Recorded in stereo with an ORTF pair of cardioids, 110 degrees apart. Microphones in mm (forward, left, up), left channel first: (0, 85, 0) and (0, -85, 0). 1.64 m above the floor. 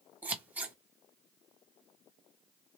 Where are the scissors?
10° right, 1.1 m.